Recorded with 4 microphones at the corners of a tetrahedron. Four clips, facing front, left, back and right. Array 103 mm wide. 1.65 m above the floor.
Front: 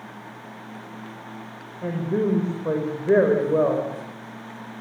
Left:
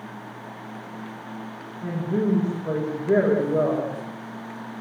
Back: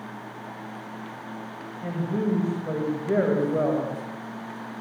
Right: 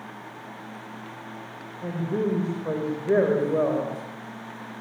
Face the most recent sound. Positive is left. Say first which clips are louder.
# left 2 dB, front 4 dB
turn(degrees=-15)